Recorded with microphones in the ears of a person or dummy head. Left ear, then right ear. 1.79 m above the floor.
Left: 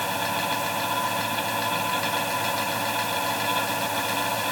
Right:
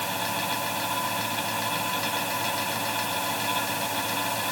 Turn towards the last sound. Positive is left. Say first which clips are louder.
# left 2 dB
turn(degrees=5)  # may be behind; listen again after turning